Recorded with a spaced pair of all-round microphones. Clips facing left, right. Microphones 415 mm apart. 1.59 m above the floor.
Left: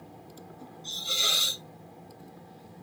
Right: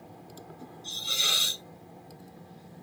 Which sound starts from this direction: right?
A hiss, at 0.8 s.